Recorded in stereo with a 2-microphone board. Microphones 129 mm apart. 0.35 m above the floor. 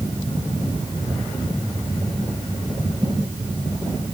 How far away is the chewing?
I don't hear chewing.